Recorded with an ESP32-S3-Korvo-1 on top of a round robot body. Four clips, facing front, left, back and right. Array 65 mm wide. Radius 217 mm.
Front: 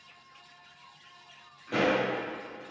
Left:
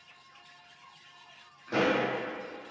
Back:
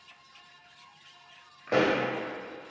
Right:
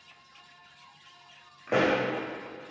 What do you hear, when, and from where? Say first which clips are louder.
1.7 s a pop: right 2 dB, back 2 dB; 130° right, 2 m